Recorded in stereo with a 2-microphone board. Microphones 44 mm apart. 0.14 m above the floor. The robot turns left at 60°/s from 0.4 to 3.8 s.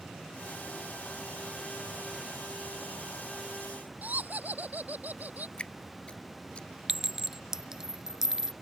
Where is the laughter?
40° right (ahead or behind).